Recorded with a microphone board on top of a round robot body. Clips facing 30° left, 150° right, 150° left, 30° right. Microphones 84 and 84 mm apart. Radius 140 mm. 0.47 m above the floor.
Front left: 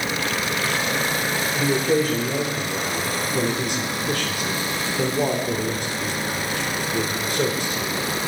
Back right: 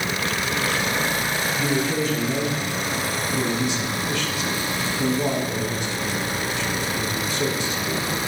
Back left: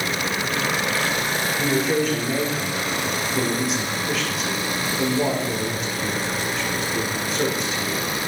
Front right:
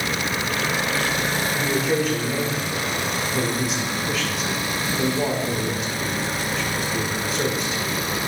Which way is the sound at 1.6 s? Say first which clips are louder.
Front left 5 dB, back left 2 dB; 60° left.